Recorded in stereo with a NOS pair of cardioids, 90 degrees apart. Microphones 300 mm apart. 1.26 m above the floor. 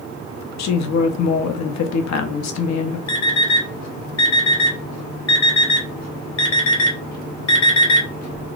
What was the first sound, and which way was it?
A woman speaking, 65° left.